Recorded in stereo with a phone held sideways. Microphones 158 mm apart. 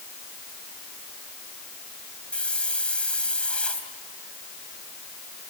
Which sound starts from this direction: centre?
A hiss, at 2.3 s.